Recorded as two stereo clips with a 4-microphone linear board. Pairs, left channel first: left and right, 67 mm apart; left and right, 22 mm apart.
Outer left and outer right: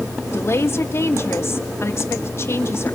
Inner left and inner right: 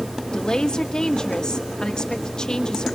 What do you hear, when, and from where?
0.3 s a woman speaking: 45° left (ahead or behind), 1.6 m